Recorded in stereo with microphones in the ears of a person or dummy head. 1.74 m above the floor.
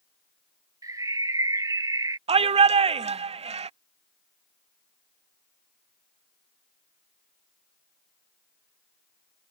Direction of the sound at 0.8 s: 20° right (ahead or behind).